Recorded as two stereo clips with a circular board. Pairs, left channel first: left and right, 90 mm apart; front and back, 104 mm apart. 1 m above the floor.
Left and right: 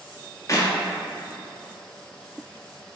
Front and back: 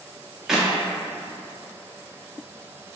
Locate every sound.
0.5 s a clap: 95° left, 0.5 m